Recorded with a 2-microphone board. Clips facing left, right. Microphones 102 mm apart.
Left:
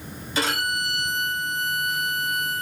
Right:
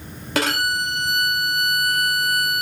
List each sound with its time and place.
0.3 s a violin: 65° right (ahead or behind), 0.7 m